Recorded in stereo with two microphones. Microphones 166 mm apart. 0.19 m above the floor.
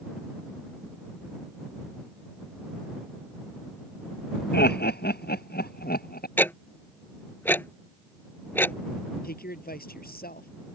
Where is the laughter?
80° left; by 6.3 s 65° left (ahead or behind).